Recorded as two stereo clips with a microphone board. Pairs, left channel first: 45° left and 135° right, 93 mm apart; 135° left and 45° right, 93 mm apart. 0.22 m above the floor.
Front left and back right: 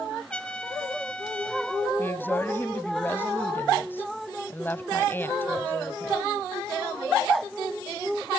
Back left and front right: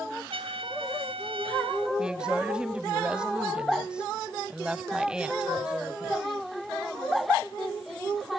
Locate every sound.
0.3 s a trumpet: 35° right, 1.4 m
2.0 s a woman speaking: 20° left, 1.0 m